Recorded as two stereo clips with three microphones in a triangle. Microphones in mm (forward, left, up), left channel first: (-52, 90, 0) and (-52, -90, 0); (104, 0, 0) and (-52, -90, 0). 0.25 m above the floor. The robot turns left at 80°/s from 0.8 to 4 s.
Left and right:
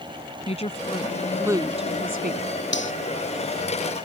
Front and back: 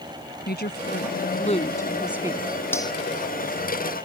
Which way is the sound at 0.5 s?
40° left.